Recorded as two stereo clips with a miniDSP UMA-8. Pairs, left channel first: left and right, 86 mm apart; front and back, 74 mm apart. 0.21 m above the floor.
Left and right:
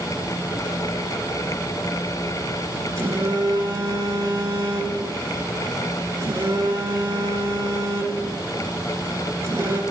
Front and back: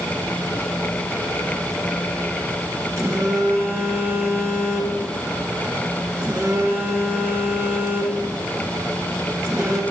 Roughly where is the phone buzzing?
Behind right.